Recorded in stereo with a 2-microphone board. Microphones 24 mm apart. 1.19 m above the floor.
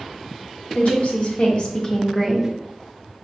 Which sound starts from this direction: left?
A woman speaking, at 0.8 s.